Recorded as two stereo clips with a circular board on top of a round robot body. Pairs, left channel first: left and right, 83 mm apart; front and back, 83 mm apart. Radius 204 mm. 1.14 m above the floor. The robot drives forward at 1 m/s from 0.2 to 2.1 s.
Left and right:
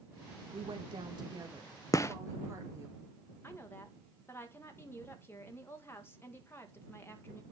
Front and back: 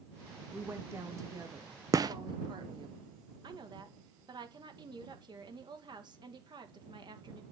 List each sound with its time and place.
0.5 s a woman speaking: 110° right, 1.5 m; by 2.9 s 145° right, 2.5 m
1.9 s a gunshot: 135° left, 0.8 m; by 2.1 s 145° left, 0.9 m
3.4 s a woman speaking: 150° left, 2.0 m